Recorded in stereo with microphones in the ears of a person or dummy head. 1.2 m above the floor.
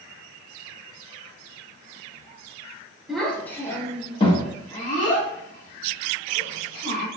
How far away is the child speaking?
About 1.1 m.